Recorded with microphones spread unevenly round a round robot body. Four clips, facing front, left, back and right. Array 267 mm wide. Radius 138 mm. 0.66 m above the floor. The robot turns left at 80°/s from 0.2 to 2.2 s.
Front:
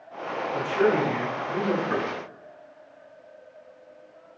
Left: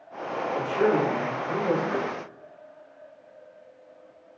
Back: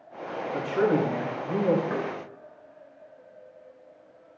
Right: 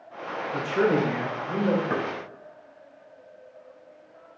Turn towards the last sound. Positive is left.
turn(degrees=-105)